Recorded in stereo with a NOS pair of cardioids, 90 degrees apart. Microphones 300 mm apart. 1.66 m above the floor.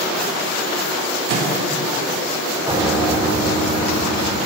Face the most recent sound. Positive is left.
turn(degrees=-10)